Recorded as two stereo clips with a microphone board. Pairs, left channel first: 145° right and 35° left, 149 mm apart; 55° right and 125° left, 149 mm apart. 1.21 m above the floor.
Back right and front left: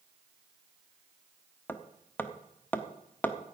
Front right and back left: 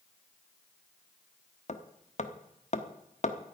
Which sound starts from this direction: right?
Hammering, at 1.7 s.